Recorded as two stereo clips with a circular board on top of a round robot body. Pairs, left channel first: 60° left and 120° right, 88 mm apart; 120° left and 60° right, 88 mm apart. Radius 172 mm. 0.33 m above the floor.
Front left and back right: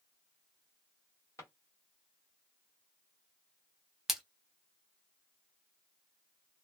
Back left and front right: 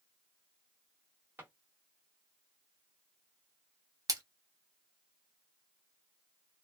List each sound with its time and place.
1.4 s a drawer: 5° left, 1.5 m
4.1 s a splash: 35° right, 1.0 m